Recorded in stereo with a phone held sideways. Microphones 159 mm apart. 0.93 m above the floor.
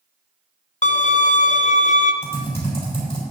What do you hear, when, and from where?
0.8 s a violin: 50° left (ahead or behind), 0.5 m
2.2 s typing on a keyboard: 40° left (ahead or behind), 3.5 m